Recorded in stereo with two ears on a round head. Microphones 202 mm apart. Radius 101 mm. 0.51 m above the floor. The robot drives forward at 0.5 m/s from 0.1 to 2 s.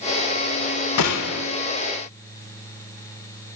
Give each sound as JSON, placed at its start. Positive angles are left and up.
{"t": 1.0, "sound": "a gunshot", "side_deg": 85, "distance_m": 0.6}